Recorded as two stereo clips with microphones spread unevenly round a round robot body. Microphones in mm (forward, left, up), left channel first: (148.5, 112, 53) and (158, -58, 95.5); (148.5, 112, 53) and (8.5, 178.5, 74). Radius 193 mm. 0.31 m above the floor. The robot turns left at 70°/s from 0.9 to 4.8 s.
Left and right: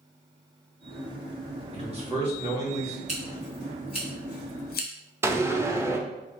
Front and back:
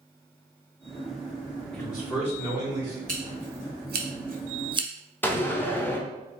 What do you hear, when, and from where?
1.7 s a man speaking: 90° right, 1.2 m; by 3.0 s 175° right, 1.2 m
3.1 s scissors: 150° right, 0.7 m; by 4.9 s 90° left, 0.7 m
5.2 s a door slam: straight ahead, 0.7 m